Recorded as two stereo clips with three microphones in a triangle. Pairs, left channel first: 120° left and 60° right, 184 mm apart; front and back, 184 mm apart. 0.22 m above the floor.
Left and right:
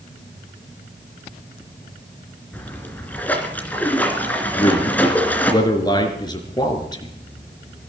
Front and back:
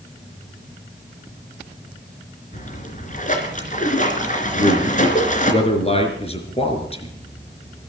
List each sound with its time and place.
2.5 s a splash: 40° left, 2.5 m
4.5 s a man speaking: 55° left, 3.5 m